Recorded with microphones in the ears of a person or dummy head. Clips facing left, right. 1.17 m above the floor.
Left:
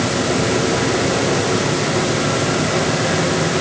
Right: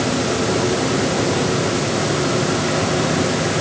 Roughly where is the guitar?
No guitar in this recording.